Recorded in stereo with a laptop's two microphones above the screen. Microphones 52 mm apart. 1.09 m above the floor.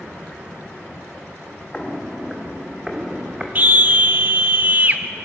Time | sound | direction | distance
1.7 | footsteps | 20° left (ahead or behind) | 2.5 m
3.5 | a scream | 35° right (ahead or behind) | 1.8 m